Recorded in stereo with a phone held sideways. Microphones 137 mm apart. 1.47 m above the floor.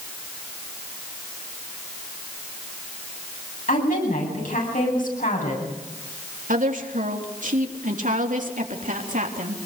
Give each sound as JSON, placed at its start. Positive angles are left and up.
{"t": 3.7, "sound": "a woman speaking", "side_deg": 80, "distance_m": 9.0}
{"t": 6.5, "sound": "a woman speaking", "side_deg": -75, "distance_m": 3.5}